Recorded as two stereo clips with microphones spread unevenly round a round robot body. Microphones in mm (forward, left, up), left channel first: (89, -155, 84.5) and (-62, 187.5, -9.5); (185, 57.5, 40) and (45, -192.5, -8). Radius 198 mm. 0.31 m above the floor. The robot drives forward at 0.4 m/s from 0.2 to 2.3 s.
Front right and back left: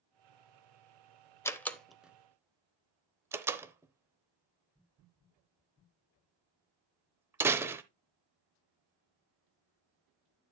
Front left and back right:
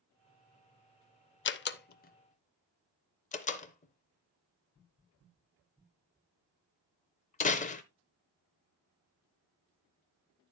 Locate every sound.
1.4 s a door slam: 35° left, 0.7 m; by 7.8 s 105° left, 0.6 m